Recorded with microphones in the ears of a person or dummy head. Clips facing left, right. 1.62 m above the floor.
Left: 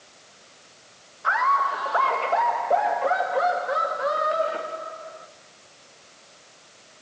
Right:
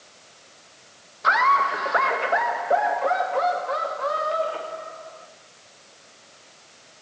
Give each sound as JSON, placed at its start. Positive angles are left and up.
{"t": 1.2, "sound": "laughter", "side_deg": -50, "distance_m": 2.0}